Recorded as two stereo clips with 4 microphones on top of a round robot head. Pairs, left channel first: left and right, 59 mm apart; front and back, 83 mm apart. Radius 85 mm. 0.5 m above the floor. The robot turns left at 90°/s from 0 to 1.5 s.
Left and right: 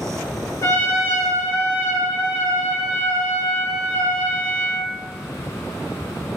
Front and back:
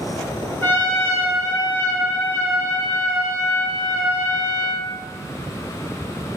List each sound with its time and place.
0.6 s a trumpet: 55° left, 1.2 m; by 4.9 s 25° right, 1.2 m